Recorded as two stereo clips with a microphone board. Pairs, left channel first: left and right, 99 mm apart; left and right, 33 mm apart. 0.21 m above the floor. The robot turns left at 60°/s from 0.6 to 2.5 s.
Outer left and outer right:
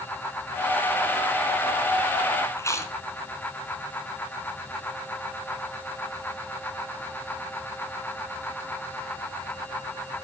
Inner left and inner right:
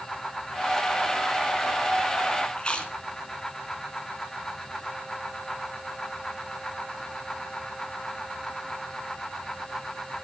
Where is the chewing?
30° left (ahead or behind), 3 m.